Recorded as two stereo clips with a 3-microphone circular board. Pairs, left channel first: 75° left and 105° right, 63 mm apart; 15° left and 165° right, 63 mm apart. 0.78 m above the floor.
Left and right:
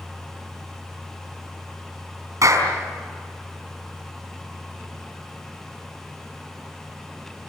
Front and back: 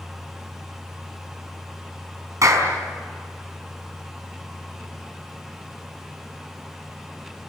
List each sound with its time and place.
2.4 s a clap: 135° right, 5 m